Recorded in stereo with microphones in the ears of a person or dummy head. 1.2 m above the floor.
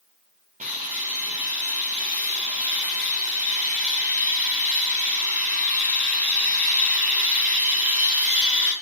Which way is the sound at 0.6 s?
40° right (ahead or behind).